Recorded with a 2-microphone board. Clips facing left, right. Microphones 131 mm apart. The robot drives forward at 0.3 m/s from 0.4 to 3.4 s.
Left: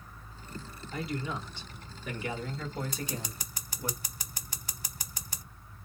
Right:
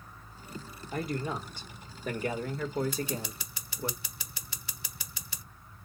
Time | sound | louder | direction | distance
0.9 | a man speaking | right 2 dB | 45° right (ahead or behind) | 1.4 m
2.9 | scissors | right 3 dB | 40° left (ahead or behind) | 0.8 m